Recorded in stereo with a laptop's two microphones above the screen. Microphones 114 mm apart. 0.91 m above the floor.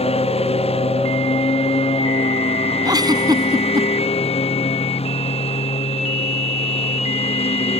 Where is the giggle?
35° right (ahead or behind).